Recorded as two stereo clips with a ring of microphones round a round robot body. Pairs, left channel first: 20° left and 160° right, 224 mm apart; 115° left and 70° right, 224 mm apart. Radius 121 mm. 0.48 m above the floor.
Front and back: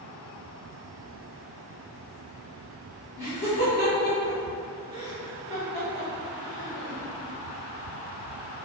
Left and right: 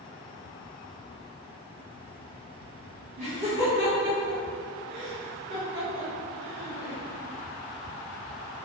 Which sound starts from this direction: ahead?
Laughter, at 3.2 s.